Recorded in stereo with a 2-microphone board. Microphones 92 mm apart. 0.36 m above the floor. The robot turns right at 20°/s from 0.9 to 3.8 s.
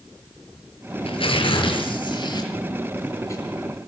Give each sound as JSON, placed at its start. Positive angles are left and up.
{"t": 1.0, "sound": "tearing paper", "azimuth_deg": 100, "distance_m": 5.5}